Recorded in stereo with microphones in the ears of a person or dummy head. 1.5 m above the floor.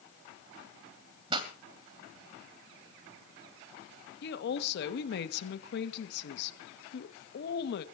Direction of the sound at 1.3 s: 25° right (ahead or behind).